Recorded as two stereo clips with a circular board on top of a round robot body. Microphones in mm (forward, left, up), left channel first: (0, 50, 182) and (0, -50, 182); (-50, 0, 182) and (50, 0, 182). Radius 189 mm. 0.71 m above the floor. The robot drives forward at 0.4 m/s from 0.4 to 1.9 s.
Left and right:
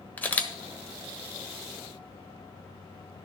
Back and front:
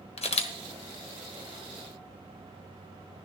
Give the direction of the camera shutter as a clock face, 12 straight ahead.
6 o'clock.